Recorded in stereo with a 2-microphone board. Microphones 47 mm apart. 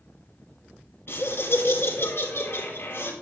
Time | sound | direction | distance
1.1 | laughter | 55° left (ahead or behind) | 3 m